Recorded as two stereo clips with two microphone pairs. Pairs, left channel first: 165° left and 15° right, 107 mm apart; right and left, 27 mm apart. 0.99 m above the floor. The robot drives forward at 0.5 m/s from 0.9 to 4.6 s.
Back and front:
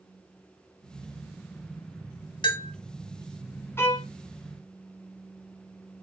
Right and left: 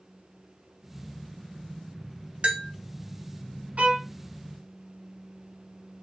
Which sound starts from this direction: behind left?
A bell, at 2.4 s.